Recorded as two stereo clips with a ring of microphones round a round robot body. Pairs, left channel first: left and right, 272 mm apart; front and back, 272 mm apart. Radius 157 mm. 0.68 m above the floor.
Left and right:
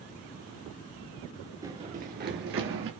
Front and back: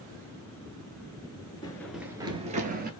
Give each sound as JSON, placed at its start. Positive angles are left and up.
{"t": 1.6, "sound": "running footsteps", "azimuth_deg": -40, "distance_m": 0.6}